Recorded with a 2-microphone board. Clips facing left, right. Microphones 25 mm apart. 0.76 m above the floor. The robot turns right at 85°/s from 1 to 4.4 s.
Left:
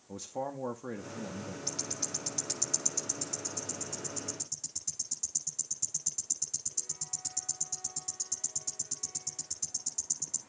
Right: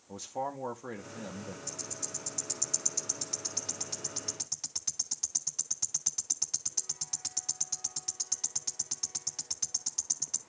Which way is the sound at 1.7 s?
70° left (ahead or behind).